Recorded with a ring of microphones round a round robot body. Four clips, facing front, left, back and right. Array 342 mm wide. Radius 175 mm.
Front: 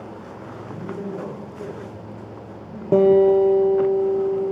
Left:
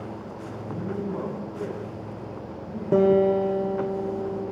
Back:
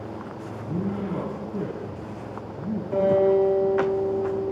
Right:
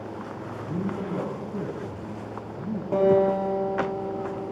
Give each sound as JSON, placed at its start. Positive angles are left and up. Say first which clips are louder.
{"t": 0.6, "sound": "a man speaking", "louder": "even, back 3 dB", "azimuth_deg": -150, "distance_m": 4.5}
{"t": 2.9, "sound": "a guitar", "louder": "left 1 dB, front 6 dB", "azimuth_deg": 25, "distance_m": 5.0}